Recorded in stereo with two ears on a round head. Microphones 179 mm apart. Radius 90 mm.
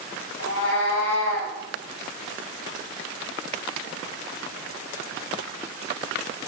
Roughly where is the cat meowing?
Left.